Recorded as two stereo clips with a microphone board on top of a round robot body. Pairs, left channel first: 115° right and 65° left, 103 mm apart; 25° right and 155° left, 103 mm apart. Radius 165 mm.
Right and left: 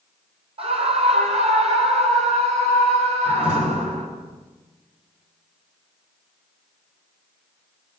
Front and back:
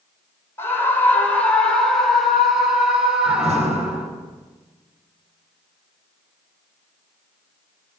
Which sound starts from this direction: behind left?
A door slam, at 3.2 s.